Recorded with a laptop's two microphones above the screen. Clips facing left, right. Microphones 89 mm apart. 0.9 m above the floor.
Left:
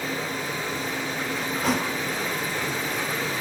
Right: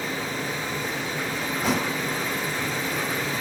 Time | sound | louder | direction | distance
1.6 | a thud | even | centre (ahead or behind) | 1.4 m